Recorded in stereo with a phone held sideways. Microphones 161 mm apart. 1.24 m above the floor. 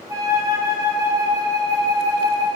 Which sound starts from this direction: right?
A flute, at 0.1 s.